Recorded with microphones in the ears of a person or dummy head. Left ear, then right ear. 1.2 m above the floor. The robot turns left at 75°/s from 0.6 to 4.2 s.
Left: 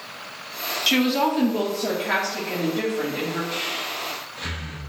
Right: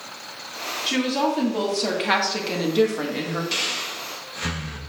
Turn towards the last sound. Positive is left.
turn(degrees=-40)  # may be behind; listen again after turning